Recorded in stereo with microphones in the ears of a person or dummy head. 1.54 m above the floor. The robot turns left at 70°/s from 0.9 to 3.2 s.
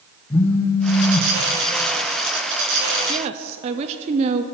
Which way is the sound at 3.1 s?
30° right (ahead or behind).